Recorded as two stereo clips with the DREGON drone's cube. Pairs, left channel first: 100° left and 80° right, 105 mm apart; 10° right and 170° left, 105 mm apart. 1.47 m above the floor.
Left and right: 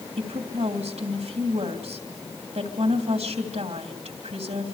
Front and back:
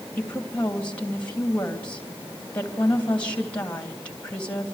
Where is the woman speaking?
90° right, 3 m.